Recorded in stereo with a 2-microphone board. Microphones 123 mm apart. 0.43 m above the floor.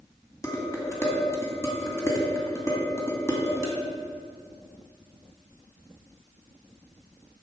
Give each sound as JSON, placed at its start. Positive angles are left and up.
{"t": 0.4, "sound": "dishes clattering", "side_deg": 25, "distance_m": 2.0}